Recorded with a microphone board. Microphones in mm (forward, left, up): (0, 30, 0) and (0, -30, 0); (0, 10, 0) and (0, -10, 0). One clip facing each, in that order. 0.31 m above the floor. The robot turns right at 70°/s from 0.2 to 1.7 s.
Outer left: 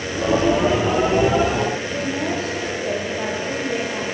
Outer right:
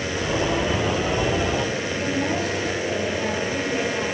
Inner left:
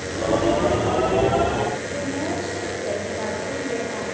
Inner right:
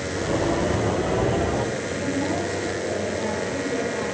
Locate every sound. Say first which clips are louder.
1.9 s a woman speaking: outer left 1 dB, inner right 1 dB; 45° left (ahead or behind), 9.5 m